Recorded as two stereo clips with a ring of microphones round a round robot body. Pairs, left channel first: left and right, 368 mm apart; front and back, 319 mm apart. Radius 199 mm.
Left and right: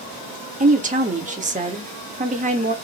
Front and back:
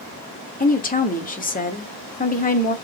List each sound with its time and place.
0.6 s a woman speaking: 40° right, 1.1 m